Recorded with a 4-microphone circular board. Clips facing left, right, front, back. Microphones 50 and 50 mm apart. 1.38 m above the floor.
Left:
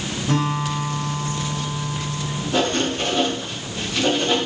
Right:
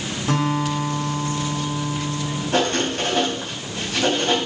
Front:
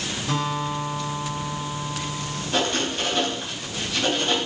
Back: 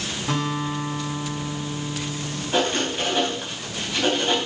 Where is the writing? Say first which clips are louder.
Even, back 2 dB; 105° right, 5 m.